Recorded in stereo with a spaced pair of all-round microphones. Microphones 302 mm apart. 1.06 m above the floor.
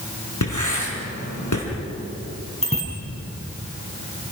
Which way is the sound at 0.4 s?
80° left.